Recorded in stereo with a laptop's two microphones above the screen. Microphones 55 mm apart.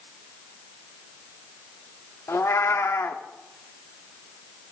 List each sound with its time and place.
2.3 s a cat meowing: 60° left (ahead or behind), 0.6 m